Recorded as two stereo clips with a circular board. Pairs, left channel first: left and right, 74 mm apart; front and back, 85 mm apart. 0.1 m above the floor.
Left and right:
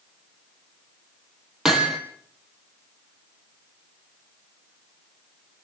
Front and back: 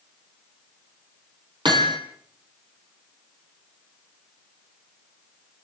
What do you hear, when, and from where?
1.6 s hammering: 175° right, 3 m